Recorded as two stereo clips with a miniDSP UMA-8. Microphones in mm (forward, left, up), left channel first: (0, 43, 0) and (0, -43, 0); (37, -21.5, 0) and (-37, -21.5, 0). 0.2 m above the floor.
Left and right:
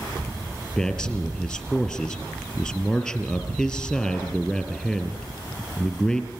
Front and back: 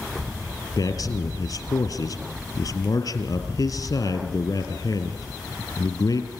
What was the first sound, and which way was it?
A man speaking, 15° left.